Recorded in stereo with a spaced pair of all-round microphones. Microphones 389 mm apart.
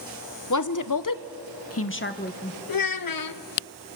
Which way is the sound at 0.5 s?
45° left (ahead or behind).